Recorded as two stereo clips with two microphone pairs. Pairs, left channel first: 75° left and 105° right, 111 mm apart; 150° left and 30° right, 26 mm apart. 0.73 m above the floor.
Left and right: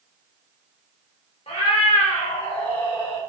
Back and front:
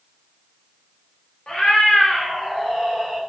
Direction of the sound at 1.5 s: 110° left.